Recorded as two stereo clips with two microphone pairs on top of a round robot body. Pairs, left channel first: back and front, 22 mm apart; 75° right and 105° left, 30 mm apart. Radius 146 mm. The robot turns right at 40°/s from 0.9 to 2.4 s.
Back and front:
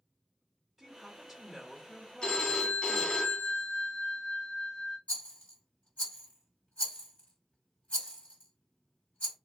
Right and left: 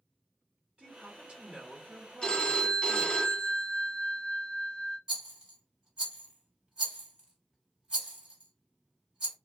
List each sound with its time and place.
0.8 s a woman speaking: 75° left, 1.6 m; by 3.2 s 135° left, 1.6 m
2.2 s a phone ringing: 145° right, 1.5 m; by 5.0 s 135° right, 1.5 m
5.1 s a rattle: 165° left, 2 m